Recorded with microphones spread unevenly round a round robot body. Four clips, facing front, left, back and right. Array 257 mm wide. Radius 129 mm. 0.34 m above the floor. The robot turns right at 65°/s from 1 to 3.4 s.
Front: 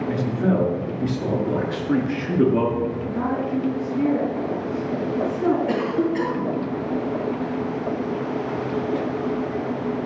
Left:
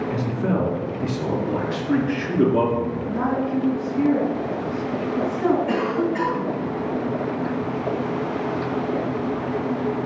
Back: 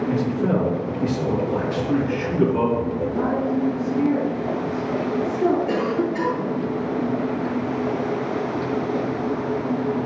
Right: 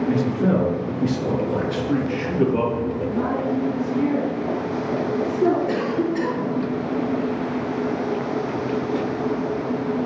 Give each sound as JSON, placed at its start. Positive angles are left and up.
{"t": 0.1, "sound": "a man speaking", "azimuth_deg": -65, "distance_m": 4.5}
{"t": 3.1, "sound": "a woman speaking", "azimuth_deg": 55, "distance_m": 4.0}
{"t": 5.7, "sound": "a cough", "azimuth_deg": 65, "distance_m": 3.0}